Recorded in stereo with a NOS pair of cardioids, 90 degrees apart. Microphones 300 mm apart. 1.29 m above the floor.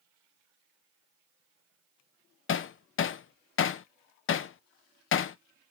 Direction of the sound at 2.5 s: 45° left.